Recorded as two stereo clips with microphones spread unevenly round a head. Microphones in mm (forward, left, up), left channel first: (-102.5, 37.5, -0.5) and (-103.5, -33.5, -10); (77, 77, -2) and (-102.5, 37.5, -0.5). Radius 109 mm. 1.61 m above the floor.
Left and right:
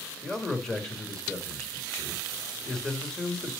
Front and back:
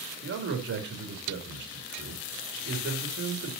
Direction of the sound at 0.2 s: 170° left.